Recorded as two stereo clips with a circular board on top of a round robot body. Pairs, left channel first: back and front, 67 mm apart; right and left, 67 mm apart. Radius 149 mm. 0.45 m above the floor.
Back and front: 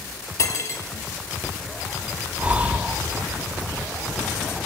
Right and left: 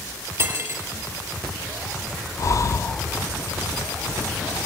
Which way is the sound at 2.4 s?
65° right.